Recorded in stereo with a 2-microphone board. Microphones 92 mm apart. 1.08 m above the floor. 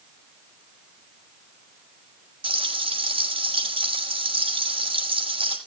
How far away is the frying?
About 5 m.